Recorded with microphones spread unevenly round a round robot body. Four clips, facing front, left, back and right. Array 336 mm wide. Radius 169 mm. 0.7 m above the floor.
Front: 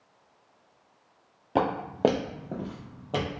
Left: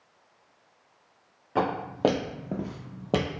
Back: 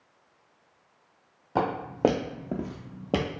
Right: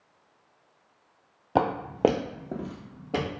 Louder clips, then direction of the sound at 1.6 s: Right 2 dB, front 1 dB; 70° right.